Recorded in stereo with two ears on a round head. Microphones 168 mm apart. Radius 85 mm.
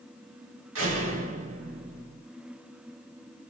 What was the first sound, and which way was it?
A door slam, 80° right.